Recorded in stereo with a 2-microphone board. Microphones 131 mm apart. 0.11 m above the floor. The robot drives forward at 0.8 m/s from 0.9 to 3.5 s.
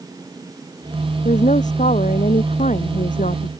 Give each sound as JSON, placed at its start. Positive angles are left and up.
{"t": 1.2, "sound": "a woman speaking", "side_deg": 70}